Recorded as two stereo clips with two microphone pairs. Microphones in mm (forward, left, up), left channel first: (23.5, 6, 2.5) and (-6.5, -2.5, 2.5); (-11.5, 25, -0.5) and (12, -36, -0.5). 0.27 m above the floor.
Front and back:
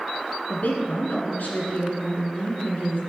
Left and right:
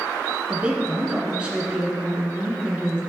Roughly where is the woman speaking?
Ahead.